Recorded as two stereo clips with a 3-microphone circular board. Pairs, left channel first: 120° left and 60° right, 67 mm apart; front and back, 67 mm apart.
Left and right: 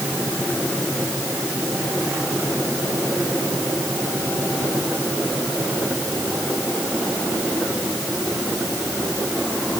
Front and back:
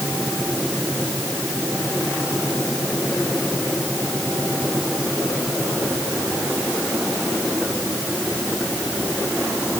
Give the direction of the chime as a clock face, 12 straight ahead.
No chime in this recording.